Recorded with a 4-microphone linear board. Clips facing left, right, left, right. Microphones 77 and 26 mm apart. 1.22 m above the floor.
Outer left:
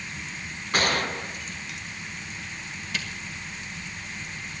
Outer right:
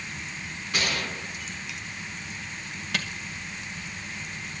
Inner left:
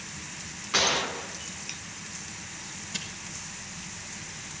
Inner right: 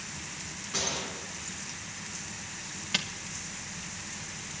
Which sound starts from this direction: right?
A camera shutter, at 2.9 s.